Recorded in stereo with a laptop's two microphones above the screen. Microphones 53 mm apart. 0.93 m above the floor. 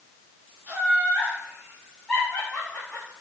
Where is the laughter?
35° right (ahead or behind), 1.6 m; by 3.1 s 45° left (ahead or behind), 1.8 m.